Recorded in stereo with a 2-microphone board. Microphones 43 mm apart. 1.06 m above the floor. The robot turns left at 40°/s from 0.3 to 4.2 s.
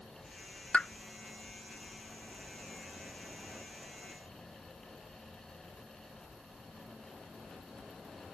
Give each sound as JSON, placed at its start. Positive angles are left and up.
{"t": 0.7, "sound": "a pop", "side_deg": 30}